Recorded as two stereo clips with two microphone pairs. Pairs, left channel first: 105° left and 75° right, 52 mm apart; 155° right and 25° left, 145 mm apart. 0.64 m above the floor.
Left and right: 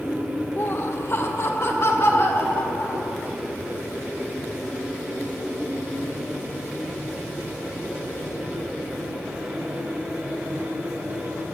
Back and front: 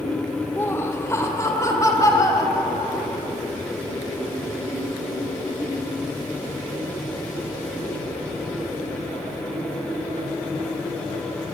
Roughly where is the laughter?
Behind left.